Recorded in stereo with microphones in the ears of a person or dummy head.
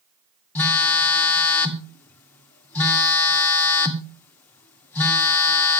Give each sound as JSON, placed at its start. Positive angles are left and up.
{"t": 0.6, "sound": "a phone buzzing", "side_deg": 15, "distance_m": 1.9}